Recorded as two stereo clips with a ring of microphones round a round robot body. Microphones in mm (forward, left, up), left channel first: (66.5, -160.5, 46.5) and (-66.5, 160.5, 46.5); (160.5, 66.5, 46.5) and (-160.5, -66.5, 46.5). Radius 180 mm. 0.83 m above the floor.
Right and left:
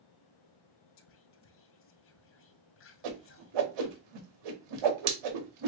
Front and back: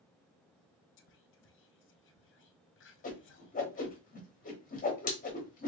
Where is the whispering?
25° right, 0.5 m.